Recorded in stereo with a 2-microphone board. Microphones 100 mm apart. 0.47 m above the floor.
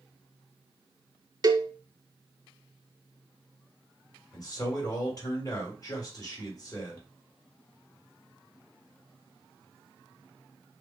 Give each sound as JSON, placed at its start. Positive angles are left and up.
{"t": 1.4, "sound": "a cowbell", "side_deg": -40, "distance_m": 0.5}
{"t": 4.3, "sound": "a man speaking", "side_deg": 35, "distance_m": 1.8}